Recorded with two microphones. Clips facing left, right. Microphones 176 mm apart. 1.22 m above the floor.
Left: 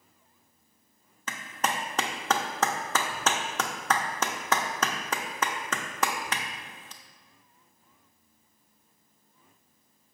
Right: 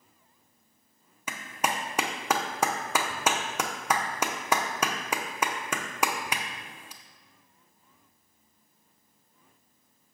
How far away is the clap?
About 0.6 m.